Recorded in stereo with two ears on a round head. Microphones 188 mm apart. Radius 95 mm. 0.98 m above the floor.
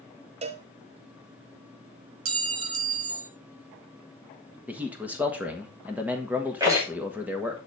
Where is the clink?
70° right (ahead or behind), 1.0 m.